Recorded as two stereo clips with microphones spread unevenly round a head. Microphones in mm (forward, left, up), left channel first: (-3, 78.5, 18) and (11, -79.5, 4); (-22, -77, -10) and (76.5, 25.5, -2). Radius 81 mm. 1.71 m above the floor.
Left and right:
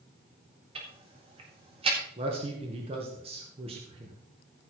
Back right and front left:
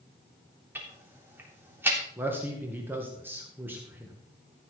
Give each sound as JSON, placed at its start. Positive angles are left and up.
{"t": 0.8, "sound": "ticking", "azimuth_deg": -25, "distance_m": 3.5}
{"t": 2.2, "sound": "a man speaking", "azimuth_deg": -30, "distance_m": 2.0}